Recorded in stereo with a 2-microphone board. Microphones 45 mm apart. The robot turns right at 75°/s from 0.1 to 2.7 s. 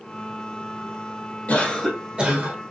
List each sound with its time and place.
1.5 s a cough: 150° left, 1.9 m; by 2.6 s 125° right, 1.9 m